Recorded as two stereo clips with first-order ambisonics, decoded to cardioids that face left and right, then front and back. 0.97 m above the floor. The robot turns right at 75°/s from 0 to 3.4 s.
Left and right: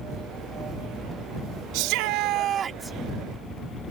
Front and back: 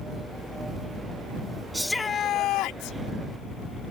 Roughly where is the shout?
Right.